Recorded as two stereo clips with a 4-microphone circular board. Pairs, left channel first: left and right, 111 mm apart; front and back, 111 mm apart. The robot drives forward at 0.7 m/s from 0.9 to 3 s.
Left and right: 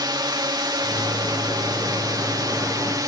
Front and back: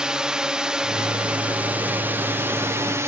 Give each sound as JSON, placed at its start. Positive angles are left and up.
{"t": 0.0, "sound": "a drone", "azimuth_deg": -100}